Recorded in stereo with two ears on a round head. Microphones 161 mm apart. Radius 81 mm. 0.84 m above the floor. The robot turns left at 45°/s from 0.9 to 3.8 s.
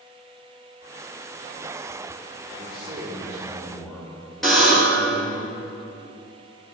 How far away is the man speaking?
About 2.5 m.